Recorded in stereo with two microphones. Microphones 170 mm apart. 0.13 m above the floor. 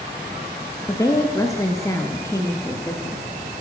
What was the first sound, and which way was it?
A woman speaking, 20° left (ahead or behind).